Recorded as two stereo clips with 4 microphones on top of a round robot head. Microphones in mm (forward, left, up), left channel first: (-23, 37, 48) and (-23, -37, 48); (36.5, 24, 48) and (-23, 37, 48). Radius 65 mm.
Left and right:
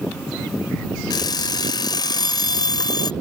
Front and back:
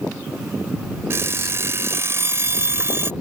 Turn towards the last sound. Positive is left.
turn(degrees=120)